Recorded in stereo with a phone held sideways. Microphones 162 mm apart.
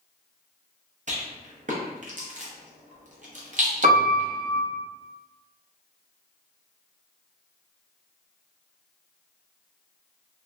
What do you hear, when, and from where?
1.1 s a rattle: 50° right (ahead or behind), 0.7 m
3.8 s a piano: 50° right (ahead or behind), 0.7 m